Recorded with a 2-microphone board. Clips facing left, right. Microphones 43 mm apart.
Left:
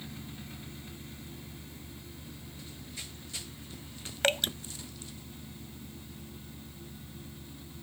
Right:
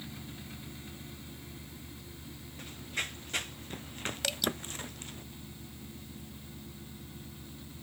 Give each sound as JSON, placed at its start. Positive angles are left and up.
{"t": 2.6, "sound": "running footsteps", "side_deg": -55}
{"t": 4.2, "sound": "dripping", "side_deg": 45}